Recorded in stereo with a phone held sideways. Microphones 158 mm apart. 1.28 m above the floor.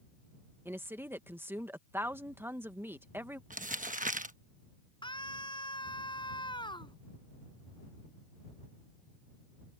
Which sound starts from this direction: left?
A scream, at 5.0 s.